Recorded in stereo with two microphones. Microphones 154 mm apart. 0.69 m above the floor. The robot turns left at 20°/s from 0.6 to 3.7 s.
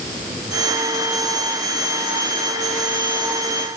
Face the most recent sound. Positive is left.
No sound to turn to.